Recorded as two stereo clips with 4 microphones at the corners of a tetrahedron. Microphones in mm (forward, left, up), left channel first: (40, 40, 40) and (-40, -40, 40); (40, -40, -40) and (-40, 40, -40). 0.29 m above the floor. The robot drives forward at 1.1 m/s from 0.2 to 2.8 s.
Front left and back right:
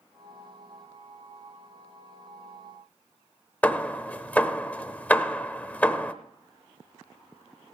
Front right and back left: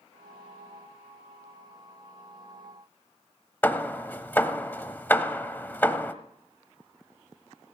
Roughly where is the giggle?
I don't hear a giggle.